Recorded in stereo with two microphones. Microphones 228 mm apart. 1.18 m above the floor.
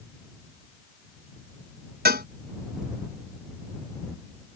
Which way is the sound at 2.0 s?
45° right (ahead or behind).